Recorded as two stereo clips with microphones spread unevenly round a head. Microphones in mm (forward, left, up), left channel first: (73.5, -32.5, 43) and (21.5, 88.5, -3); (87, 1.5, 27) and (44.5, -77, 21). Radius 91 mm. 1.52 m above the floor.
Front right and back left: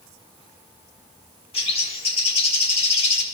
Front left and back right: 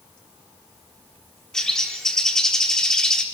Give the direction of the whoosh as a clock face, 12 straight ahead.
I don't hear a whoosh.